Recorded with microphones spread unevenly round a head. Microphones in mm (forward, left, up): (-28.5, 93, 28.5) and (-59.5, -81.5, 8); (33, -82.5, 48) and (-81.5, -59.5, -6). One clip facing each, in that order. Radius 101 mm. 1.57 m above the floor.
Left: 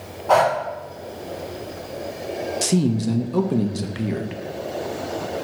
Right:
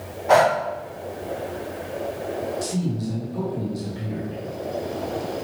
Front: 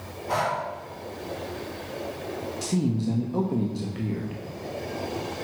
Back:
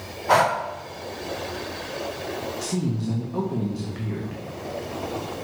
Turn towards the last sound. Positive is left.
turn(degrees=65)